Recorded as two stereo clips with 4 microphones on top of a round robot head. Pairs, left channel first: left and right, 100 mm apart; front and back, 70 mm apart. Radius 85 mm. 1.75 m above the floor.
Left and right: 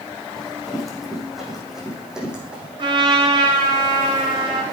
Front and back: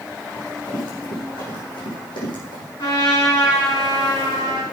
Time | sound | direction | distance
0.4 | running footsteps | 5° left | 6 m
2.8 | a trumpet | 55° right | 6.5 m